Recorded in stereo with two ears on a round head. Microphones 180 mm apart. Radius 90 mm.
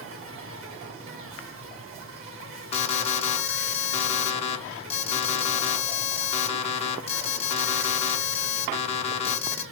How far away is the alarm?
About 0.7 m.